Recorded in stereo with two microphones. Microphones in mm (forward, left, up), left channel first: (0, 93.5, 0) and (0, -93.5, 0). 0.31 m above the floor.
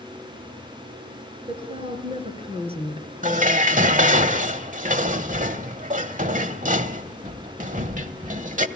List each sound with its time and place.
1.5 s a woman speaking: 30° right (ahead or behind), 5 m
3.2 s dishes clattering: 45° right (ahead or behind), 0.9 m